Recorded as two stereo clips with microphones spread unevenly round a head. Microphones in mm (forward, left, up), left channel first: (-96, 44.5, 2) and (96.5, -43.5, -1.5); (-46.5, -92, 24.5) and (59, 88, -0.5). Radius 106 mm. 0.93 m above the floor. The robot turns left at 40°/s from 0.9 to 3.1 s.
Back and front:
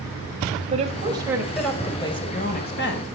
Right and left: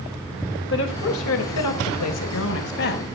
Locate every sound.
0.7 s a woman speaking: 85° right, 4 m; by 3.0 s 170° right, 4 m